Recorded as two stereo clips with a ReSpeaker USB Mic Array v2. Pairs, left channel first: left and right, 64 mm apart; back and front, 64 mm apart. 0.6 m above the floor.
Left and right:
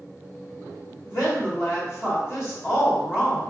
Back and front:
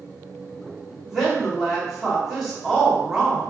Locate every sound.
1.1 s a woman speaking: 85° left, 1.7 m